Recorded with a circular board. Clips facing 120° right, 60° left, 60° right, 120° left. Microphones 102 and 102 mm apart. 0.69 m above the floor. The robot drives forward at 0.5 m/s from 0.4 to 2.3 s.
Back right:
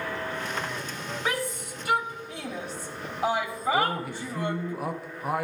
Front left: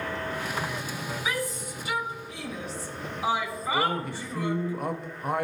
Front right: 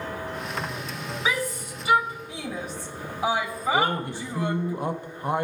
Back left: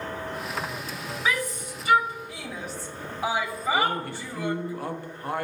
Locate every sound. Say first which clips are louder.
1.2 s a shout: back right 2 dB, even; 135° right, 1.3 m; by 4.7 s 150° right, 1.7 m
3.7 s a man speaking: front left 1 dB, front right 2 dB; 40° right, 0.5 m